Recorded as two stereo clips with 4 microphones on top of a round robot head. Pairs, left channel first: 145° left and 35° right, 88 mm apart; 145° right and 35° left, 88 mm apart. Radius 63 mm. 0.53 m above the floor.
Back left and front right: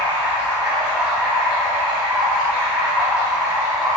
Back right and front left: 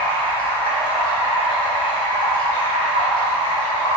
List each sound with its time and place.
0.0 s running water: 120° right, 2.5 m